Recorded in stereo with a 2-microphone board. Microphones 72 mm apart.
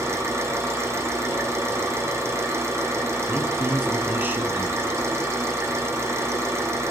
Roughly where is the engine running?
Right.